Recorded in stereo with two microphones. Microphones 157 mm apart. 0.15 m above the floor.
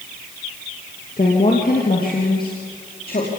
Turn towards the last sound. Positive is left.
turn(degrees=70)  # may be behind; listen again after turning